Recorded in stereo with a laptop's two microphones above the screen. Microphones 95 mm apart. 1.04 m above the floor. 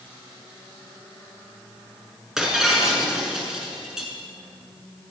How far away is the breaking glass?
About 7 m.